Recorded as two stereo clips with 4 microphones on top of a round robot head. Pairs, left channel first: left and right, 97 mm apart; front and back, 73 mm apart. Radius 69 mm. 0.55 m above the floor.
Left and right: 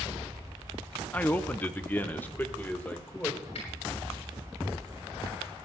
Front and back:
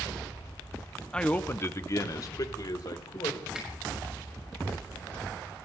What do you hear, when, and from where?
1.1 s a man speaking: 55° left, 0.7 m; by 3.4 s 15° left, 2.0 m
3.5 s a finger snap: 95° left, 7 m